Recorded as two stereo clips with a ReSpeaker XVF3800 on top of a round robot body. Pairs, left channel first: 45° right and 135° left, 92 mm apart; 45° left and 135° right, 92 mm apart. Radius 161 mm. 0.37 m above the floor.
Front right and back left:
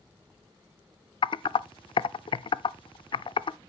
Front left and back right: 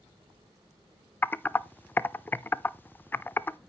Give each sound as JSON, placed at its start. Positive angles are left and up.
{"t": 1.2, "sound": "typing on a keyboard", "azimuth_deg": -25, "distance_m": 0.5}